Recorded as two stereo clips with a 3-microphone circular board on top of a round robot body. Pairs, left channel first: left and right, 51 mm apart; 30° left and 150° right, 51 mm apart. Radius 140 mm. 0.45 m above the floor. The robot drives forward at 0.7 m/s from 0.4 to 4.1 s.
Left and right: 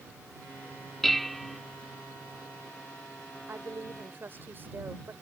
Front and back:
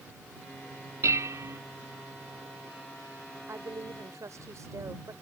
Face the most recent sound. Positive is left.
turn(degrees=-135)